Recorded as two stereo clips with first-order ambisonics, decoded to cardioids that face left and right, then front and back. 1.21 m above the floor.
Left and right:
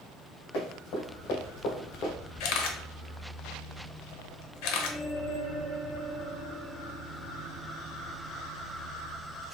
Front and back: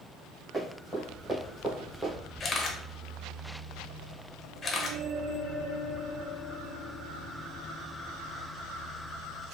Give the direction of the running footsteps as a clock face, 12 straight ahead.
9 o'clock.